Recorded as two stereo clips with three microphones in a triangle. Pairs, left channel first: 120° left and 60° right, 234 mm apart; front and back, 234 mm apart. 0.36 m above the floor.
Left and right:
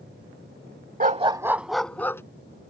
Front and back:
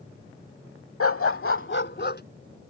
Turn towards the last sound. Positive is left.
turn(degrees=40)